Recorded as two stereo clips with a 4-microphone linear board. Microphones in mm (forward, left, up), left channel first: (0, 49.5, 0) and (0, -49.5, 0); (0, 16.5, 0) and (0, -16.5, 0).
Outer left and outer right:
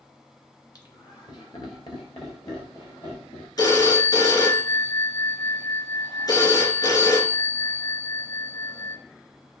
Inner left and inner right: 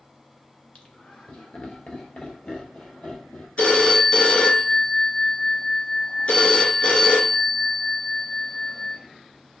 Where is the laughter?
40° left (ahead or behind), 1.7 m; by 3.5 s 45° left (ahead or behind), 4 m.